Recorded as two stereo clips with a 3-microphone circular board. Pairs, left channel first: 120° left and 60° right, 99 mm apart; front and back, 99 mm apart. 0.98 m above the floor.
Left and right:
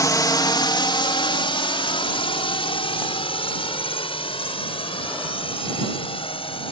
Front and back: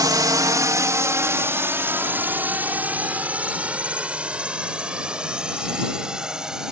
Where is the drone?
155° left; by 6.7 s 95° left.